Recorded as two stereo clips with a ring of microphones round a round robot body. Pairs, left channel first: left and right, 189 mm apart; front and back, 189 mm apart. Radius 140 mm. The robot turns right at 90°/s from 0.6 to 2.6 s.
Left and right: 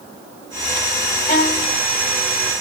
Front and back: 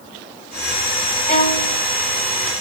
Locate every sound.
1.3 s a violin: 55° left, 1.8 m; by 1.8 s 100° left, 1.8 m